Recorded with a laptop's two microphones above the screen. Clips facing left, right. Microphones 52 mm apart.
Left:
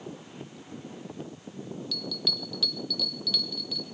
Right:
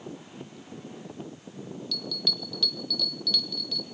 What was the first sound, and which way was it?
A bell, 5° left (ahead or behind).